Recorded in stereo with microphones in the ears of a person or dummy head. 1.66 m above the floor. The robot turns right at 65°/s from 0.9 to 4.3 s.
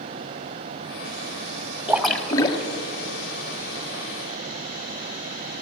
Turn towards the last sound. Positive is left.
turn(degrees=145)